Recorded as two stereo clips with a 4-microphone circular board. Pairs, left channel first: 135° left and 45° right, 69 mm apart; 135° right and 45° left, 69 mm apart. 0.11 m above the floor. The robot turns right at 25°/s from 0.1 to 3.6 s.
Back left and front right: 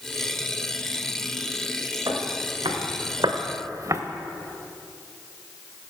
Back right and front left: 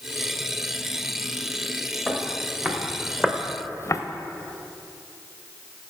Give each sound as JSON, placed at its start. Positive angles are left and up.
{"t": 2.1, "sound": "footsteps", "azimuth_deg": -40, "distance_m": 1.6}